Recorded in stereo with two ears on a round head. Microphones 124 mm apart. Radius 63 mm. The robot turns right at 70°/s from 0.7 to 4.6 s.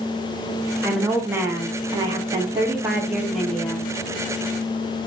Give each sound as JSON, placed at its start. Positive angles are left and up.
{"t": 0.8, "sound": "a woman speaking", "side_deg": 0, "distance_m": 0.8}